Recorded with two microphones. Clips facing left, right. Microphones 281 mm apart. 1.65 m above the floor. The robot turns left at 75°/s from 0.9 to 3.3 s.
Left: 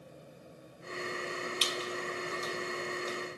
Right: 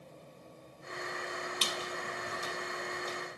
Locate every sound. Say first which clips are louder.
1.6 s a squeak: left 3 dB; 55° right (ahead or behind), 1.0 m; by 3.2 s 15° left (ahead or behind), 1.0 m